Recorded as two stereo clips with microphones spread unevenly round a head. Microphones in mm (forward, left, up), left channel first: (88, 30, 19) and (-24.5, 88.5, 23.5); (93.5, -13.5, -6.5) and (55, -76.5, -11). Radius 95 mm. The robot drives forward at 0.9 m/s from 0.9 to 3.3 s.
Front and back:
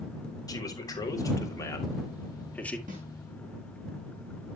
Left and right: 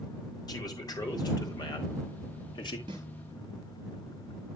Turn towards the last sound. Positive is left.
turn(degrees=-160)